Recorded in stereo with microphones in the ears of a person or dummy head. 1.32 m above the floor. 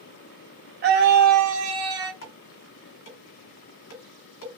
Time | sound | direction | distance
0.8 | a scream | 45° right (ahead or behind) | 0.8 m
2.2 | dishes clattering | 60° left (ahead or behind) | 1.3 m